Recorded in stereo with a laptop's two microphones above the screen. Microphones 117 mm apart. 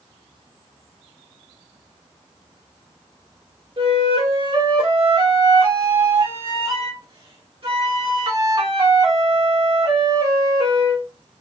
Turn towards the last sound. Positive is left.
turn(degrees=-50)  # may be behind; listen again after turning